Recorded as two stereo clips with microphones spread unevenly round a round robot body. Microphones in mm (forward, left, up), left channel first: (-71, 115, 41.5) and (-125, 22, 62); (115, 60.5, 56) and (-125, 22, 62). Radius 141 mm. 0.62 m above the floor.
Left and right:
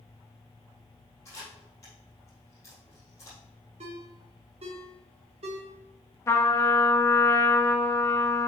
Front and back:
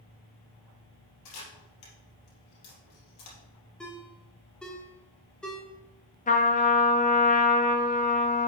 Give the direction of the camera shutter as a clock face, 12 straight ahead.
1 o'clock.